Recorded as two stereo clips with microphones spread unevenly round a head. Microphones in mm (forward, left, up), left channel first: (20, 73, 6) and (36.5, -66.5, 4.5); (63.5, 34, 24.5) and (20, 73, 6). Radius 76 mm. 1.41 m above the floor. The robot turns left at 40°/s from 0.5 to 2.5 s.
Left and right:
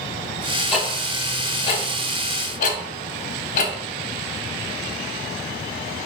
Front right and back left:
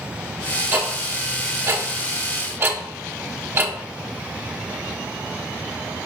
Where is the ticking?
175° right, 0.7 m; by 3.7 s 115° left, 0.7 m.